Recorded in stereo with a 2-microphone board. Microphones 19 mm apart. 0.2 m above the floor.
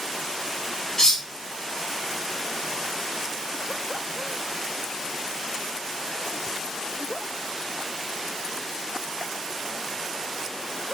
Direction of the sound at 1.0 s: 30° left (ahead or behind).